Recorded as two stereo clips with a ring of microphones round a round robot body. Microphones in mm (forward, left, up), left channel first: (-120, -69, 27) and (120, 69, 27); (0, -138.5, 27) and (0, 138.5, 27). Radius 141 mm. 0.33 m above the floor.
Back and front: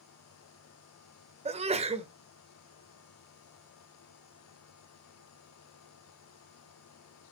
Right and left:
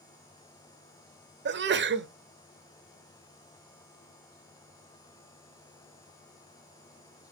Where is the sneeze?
85° left, 1.1 m.